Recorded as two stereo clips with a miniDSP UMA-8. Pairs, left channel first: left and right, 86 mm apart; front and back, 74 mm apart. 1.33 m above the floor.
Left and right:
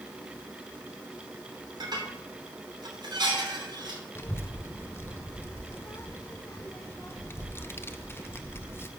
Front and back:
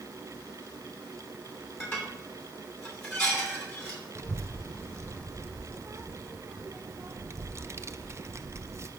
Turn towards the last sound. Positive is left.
turn(degrees=145)